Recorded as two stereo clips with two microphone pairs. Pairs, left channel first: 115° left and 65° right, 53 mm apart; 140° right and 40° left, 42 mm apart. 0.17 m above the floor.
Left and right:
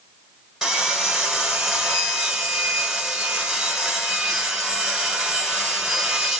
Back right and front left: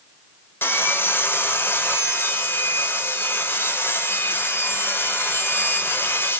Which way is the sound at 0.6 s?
145° right.